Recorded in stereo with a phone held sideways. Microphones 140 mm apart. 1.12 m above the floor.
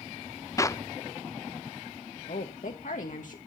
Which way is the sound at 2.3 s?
65° left (ahead or behind).